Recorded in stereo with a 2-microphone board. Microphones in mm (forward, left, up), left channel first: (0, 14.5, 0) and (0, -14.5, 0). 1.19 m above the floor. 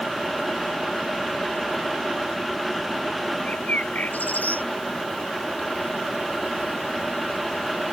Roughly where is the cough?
No cough in this recording.